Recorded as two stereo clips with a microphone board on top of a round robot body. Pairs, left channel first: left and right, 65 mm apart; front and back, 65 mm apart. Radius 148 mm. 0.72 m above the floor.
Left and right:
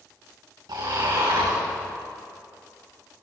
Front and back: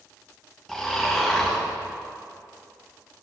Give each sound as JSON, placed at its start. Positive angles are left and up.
{"t": 0.7, "sound": "snoring", "azimuth_deg": -85, "distance_m": 3.5}